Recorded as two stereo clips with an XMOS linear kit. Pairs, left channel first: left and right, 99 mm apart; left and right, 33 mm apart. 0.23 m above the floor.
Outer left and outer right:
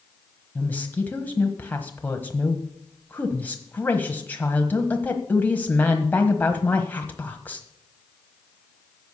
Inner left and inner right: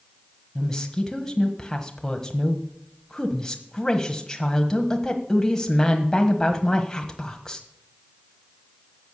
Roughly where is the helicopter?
I don't hear a helicopter.